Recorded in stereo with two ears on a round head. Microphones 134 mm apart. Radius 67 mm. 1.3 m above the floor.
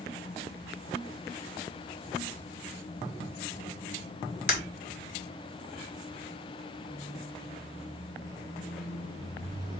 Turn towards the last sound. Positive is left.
turn(degrees=-20)  # may be behind; listen again after turning